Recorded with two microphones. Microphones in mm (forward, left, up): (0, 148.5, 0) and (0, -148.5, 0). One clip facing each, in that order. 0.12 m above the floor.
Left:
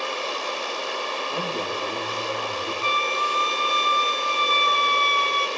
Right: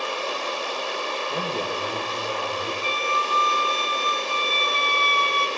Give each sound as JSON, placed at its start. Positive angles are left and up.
{"t": 1.3, "sound": "a man speaking", "side_deg": -20, "distance_m": 6.5}
{"t": 2.8, "sound": "a flute", "side_deg": -65, "distance_m": 0.9}